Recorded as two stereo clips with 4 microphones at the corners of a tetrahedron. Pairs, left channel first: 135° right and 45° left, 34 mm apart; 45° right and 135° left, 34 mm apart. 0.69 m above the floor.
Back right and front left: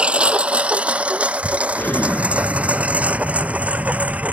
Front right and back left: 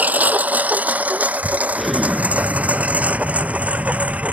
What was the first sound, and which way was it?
A lawn mower, 95° left.